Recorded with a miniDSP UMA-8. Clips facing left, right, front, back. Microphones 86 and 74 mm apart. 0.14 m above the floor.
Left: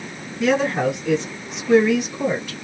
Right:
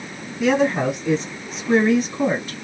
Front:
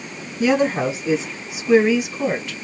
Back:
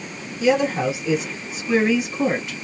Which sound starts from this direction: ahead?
A woman speaking, at 0.4 s.